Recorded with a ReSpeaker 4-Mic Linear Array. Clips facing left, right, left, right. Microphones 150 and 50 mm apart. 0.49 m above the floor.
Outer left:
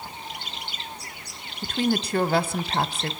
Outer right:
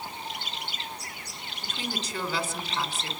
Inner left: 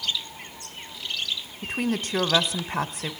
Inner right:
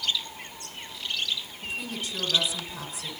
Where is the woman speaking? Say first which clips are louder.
Outer left 12 dB, inner left 11 dB; 60° left (ahead or behind), 1.5 m.